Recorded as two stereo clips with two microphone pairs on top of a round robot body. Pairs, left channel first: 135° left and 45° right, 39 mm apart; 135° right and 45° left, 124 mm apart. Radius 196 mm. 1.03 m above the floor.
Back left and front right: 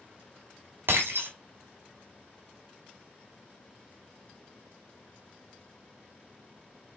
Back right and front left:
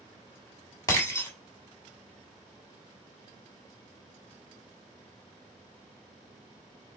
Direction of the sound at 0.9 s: 70° right.